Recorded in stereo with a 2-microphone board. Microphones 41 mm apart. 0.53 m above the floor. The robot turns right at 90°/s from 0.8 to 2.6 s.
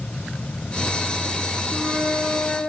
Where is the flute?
65° left, 6 m; by 2.6 s 145° left, 6 m.